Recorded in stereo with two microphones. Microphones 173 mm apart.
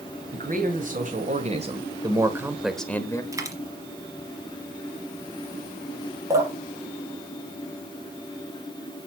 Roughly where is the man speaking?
Right.